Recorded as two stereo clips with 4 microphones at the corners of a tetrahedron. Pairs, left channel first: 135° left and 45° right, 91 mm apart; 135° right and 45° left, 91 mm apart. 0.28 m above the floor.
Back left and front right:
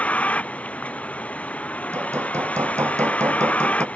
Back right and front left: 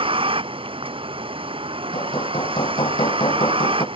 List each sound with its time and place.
0.0 s a vehicle: 60° left
1.9 s hammering: 105° right